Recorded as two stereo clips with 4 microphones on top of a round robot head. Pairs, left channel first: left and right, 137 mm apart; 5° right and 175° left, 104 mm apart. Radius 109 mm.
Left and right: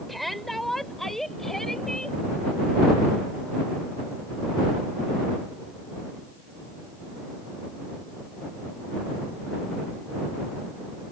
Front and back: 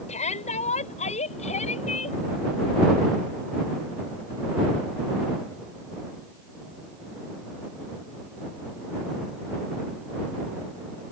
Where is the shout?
Straight ahead; by 2.2 s 5° left.